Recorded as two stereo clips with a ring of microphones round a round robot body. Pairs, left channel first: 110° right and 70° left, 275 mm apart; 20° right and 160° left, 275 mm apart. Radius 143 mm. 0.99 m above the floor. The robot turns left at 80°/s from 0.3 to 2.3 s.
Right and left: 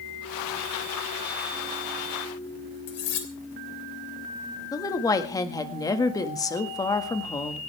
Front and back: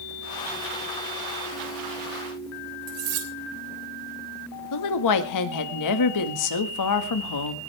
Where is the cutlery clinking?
165° right, 3 m.